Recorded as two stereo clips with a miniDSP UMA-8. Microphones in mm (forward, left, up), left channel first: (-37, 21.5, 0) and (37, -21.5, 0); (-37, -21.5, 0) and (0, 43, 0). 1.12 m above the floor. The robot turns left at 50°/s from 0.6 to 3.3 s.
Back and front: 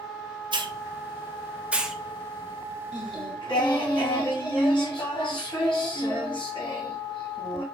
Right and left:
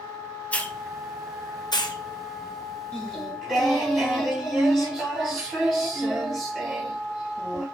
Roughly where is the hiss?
Ahead right.